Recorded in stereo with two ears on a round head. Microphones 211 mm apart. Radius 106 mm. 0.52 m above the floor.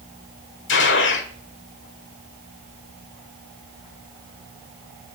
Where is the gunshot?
55° left (ahead or behind), 1.7 m.